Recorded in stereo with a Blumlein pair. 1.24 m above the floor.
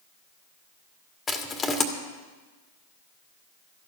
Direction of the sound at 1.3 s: 15° left.